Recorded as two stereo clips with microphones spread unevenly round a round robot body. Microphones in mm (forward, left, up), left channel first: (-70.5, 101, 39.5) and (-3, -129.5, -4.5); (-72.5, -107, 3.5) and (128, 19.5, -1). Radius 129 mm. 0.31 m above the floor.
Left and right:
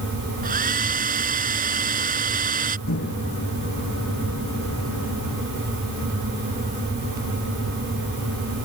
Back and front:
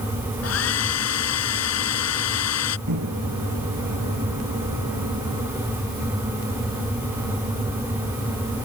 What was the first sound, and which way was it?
A hair dryer, 130° right.